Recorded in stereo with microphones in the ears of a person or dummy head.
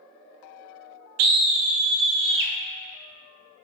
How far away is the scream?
About 1.0 m.